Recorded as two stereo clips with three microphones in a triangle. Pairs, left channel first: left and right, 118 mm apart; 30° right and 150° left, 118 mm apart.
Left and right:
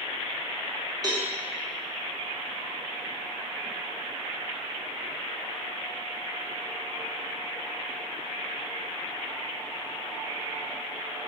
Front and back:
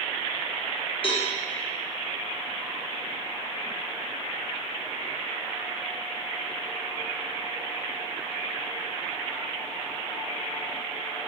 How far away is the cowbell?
About 0.9 m.